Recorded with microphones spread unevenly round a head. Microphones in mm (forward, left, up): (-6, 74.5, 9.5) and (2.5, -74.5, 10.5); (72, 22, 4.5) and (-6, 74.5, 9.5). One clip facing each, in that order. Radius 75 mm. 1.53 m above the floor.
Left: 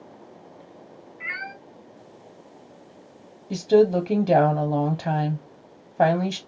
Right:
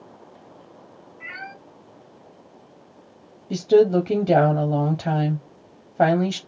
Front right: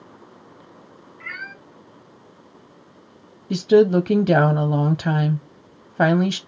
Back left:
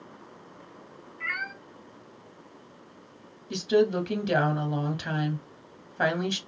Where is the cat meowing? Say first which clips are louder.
Even, back left 1 dB; 115° left, 3 m.